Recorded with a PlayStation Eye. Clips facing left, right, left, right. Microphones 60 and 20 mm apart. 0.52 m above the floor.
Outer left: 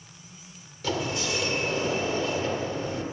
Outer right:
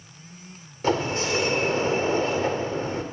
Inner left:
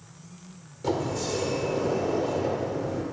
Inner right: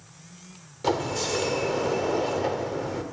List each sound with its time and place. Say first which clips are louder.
0.8 s a sliding door: outer right 5 dB, inner right 2 dB; 35° right (ahead or behind), 1.5 m